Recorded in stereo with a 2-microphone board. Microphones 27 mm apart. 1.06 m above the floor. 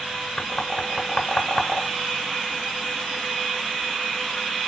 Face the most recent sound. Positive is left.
turn(degrees=25)  # may be behind; listen again after turning